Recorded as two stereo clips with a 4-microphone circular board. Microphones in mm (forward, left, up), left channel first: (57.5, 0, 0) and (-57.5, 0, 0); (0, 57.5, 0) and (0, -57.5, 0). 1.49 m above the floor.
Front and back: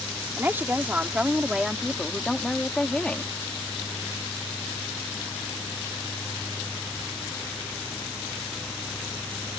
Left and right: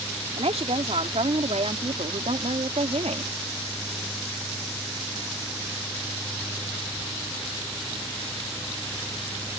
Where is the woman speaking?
110° right; by 3.3 s 75° right.